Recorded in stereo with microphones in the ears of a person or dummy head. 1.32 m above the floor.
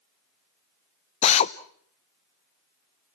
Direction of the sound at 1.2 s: 40° left (ahead or behind).